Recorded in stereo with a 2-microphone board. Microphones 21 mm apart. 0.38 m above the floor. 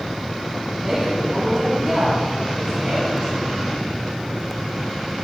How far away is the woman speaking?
About 3.5 m.